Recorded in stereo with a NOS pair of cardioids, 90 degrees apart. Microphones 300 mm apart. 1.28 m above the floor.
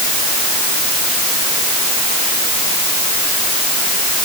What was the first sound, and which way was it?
Only background noise.